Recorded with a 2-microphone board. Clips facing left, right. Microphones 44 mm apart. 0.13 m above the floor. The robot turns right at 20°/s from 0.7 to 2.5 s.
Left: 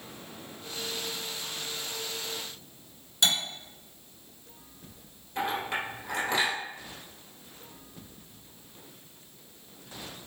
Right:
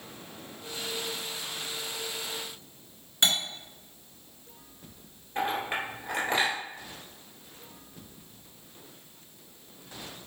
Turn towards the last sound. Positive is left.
turn(degrees=-25)  # may be behind; listen again after turning